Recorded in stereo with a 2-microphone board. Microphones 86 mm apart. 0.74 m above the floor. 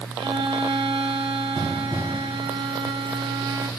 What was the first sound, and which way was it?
A violin, 75° right (ahead or behind).